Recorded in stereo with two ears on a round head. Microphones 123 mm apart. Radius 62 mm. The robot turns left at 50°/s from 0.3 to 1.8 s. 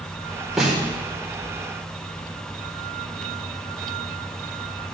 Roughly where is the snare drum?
Centre.